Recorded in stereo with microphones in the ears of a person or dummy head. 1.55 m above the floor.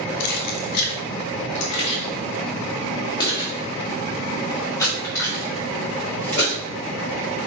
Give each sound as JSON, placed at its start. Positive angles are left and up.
{"t": 0.2, "sound": "keys jangling", "side_deg": 60, "distance_m": 1.3}